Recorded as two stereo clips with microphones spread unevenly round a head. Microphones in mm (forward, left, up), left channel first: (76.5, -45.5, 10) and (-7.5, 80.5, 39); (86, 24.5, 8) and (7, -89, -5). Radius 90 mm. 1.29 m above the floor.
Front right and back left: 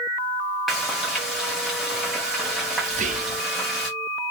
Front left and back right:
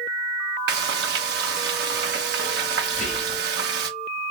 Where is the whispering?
90° left, 0.8 m.